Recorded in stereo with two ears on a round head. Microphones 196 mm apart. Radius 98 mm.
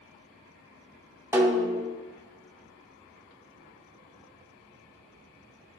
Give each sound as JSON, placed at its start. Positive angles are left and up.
{"t": 1.3, "sound": "a snare drum", "side_deg": -10, "distance_m": 1.1}